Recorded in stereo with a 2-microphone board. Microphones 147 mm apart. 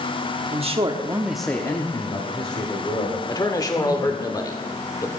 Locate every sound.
0.5 s a man speaking: 45° right (ahead or behind), 1.1 m; by 4.3 s 55° left (ahead or behind), 3 m
3.3 s a man speaking: 25° left (ahead or behind), 1.1 m